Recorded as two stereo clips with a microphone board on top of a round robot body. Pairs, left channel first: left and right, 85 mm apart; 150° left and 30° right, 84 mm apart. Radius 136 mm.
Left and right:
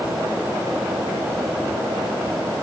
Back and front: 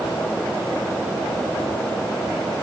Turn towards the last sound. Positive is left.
No sound to turn to.